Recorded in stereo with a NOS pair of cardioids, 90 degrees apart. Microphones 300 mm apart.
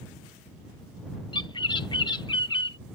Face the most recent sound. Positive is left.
turn(degrees=15)